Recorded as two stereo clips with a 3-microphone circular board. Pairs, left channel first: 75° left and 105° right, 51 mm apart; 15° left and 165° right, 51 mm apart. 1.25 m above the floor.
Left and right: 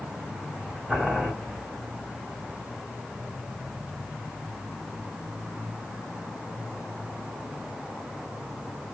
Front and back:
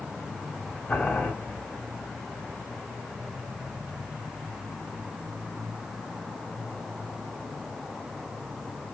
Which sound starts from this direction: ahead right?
Boiling, at 0.9 s.